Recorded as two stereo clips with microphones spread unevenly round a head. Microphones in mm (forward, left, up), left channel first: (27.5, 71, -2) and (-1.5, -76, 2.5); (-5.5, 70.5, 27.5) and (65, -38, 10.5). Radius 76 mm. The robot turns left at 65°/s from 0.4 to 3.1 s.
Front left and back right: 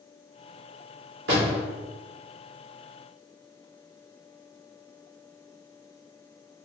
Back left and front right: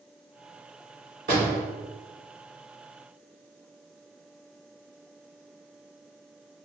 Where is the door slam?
95° right, 1.6 m; by 1.6 s 120° right, 1.6 m.